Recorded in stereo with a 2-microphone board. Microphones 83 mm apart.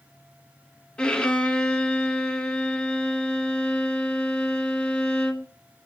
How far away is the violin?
About 1.0 m.